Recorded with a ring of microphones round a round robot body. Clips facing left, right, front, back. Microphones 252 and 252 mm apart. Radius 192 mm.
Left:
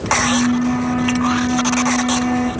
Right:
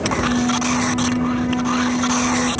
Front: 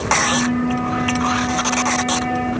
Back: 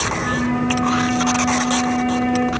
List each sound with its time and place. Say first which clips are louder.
0.1 s a flute: left 4 dB, even; 135° left, 4 m